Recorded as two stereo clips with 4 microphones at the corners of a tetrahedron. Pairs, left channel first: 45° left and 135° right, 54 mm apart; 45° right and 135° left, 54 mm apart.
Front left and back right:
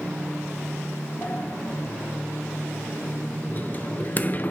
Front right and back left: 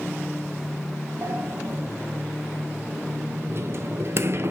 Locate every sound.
1.2 s a sliding door: 100° left, 0.7 m